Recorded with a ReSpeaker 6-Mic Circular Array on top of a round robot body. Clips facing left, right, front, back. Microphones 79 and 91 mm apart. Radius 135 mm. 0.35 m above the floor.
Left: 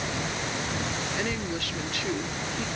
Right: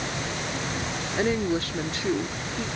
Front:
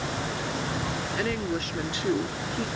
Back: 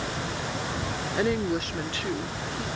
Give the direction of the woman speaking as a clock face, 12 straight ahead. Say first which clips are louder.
Right 6 dB, back 5 dB; 4 o'clock.